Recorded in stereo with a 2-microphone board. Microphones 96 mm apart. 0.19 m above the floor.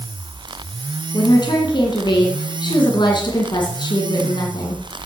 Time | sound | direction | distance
1.1 | a woman speaking | 50° left (ahead or behind) | 2.0 m